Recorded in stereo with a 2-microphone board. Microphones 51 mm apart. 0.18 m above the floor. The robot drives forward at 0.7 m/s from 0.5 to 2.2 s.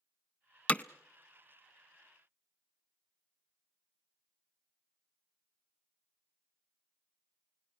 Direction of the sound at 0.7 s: 30° left (ahead or behind).